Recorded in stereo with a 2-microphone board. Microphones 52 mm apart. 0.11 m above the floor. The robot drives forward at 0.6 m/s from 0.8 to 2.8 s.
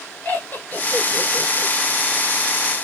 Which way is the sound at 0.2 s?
30° left (ahead or behind).